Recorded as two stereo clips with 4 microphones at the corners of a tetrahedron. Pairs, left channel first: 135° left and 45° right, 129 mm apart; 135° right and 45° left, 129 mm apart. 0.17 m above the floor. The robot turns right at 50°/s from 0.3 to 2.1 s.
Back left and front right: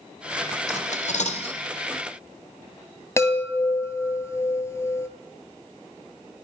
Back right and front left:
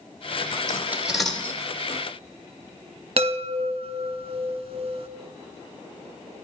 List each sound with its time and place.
0.7 s cutlery clinking: 110° left, 1.8 m; by 1.6 s 155° left, 1.8 m
3.2 s a chime: 70° left, 1.6 m